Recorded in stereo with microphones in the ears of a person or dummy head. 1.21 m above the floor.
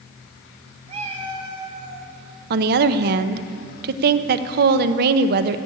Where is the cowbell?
No cowbell in this recording.